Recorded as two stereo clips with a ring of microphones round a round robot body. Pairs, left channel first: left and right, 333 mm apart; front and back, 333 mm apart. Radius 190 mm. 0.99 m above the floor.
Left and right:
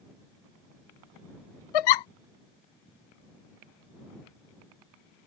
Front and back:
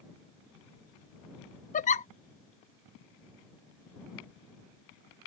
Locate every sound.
1.7 s a giggle: 70° left